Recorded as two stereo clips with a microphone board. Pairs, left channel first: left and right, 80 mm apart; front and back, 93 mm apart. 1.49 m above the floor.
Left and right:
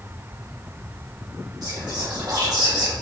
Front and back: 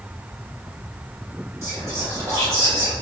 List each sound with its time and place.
1.6 s whispering: 120° right, 1.4 m